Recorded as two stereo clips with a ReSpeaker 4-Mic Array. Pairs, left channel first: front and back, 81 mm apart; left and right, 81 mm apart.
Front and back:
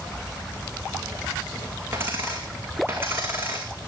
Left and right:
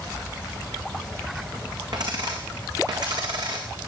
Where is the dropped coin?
120° right, 3 m.